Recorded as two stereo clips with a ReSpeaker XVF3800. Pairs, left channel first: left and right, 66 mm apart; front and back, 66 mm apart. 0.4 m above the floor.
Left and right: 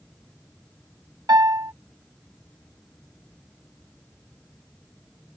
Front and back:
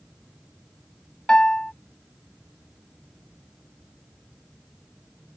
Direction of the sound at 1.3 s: 75° right.